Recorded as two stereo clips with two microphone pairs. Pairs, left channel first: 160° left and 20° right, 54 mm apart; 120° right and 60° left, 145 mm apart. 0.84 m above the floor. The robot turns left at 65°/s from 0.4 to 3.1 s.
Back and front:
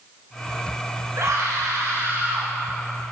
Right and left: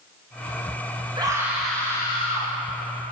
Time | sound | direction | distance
1.1 | a scream | 5° left | 4.5 m